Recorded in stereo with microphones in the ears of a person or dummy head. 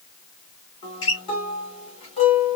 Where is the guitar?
30° left (ahead or behind), 2.5 m.